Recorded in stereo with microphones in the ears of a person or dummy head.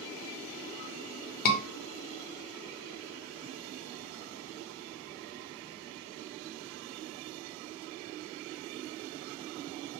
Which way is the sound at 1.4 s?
40° left (ahead or behind).